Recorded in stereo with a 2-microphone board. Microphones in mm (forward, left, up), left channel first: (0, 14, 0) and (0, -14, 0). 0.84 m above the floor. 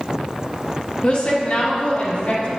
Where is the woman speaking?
45° left (ahead or behind), 1.4 m; by 2.5 s 65° left (ahead or behind), 3 m.